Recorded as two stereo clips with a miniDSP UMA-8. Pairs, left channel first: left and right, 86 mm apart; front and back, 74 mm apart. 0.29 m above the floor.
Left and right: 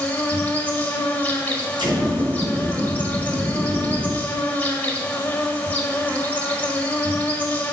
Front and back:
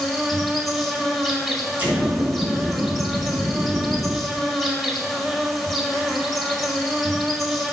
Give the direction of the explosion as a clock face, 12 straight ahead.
4 o'clock.